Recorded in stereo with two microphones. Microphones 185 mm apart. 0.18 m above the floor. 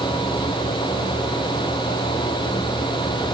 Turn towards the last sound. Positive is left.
No sound to turn to.